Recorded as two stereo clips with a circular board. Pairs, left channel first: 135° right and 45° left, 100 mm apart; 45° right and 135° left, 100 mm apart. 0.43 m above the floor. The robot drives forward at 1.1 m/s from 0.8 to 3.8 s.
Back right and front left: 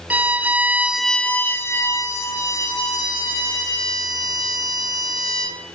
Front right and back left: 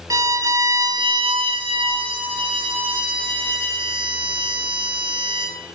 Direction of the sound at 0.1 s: 110° left.